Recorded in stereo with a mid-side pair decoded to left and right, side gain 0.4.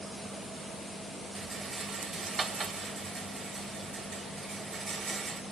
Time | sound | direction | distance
1.4 | a rattle | 45° right | 0.8 m